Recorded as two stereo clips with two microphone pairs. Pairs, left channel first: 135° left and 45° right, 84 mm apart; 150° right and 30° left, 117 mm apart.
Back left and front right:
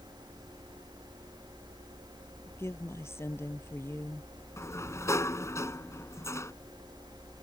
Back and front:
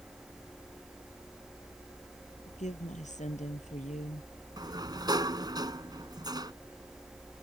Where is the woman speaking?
165° right.